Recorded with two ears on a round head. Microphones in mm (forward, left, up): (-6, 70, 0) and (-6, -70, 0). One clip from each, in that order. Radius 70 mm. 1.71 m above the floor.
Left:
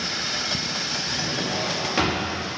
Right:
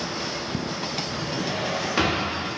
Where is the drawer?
Centre (ahead or behind), 1.5 m.